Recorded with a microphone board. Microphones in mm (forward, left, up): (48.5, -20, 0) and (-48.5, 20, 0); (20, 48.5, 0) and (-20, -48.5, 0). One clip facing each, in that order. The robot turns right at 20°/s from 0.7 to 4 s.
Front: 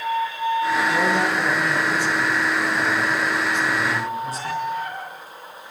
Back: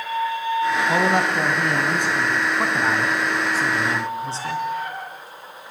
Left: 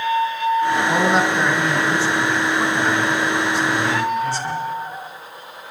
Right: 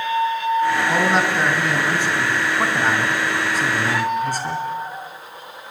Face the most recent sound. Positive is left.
turn(degrees=-145)